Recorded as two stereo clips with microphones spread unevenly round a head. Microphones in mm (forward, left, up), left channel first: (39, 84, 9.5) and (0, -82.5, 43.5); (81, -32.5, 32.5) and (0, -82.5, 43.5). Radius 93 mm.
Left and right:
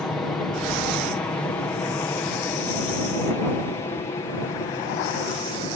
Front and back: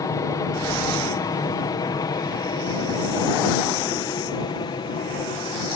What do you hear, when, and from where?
0.0 s an aircraft: straight ahead; by 5.8 s 25° left